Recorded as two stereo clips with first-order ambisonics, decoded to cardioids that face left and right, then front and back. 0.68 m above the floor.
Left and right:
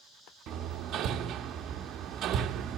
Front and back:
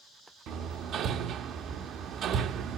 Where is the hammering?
135° right, 0.7 m.